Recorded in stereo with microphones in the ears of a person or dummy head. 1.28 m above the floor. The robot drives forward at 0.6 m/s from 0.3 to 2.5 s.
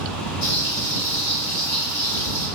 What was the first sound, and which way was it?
Frying, 45° left (ahead or behind).